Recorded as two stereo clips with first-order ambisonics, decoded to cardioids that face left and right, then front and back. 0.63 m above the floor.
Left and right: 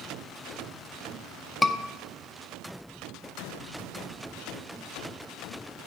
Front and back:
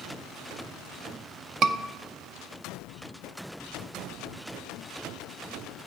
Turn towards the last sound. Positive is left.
turn(degrees=165)